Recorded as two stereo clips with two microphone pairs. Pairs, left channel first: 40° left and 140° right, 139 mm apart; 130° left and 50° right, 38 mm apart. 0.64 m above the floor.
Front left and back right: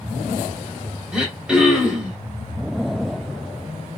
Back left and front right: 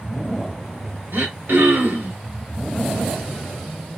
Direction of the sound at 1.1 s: 55° right.